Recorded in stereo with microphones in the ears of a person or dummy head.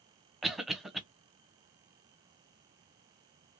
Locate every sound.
0.4 s a cough: centre (ahead or behind), 0.6 m